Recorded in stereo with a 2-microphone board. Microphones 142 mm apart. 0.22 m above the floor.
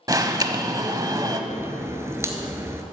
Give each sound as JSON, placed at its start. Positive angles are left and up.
{"t": 0.1, "sound": "an alarm", "side_deg": -25, "distance_m": 0.8}
{"t": 1.5, "sound": "a crack", "side_deg": -20, "distance_m": 1.2}